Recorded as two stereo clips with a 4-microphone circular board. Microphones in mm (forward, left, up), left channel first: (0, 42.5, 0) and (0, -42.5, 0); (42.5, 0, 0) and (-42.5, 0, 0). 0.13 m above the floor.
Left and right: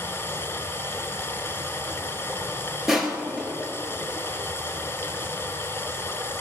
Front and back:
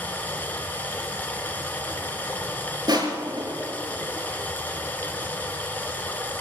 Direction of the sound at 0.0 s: 55° left.